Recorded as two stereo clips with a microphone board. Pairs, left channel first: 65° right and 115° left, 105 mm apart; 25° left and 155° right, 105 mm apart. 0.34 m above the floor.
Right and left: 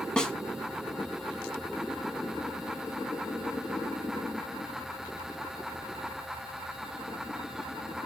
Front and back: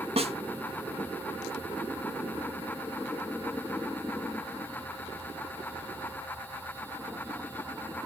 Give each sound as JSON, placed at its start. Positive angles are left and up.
{"t": 0.2, "sound": "a snare drum", "azimuth_deg": -150, "distance_m": 1.2}